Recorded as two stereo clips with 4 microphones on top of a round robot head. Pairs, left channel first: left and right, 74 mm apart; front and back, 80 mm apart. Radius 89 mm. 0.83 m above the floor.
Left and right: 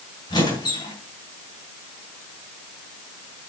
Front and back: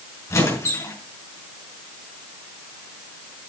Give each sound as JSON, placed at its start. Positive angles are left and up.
{"t": 0.3, "sound": "a squeak", "azimuth_deg": 55, "distance_m": 4.5}